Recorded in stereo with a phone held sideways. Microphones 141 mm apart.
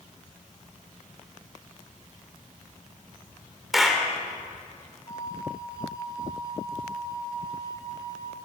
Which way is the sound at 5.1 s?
25° left (ahead or behind).